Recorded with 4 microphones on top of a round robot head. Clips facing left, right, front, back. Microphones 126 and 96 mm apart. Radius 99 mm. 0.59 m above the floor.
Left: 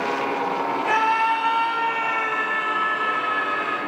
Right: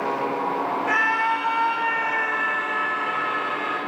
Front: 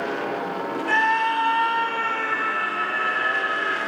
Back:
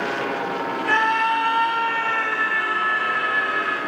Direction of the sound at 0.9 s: 150° left.